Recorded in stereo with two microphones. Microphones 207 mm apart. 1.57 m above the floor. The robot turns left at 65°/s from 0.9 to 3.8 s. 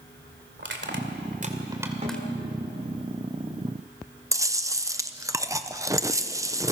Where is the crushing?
65° right (ahead or behind), 2.5 m; by 2.2 s 10° left (ahead or behind), 2.5 m.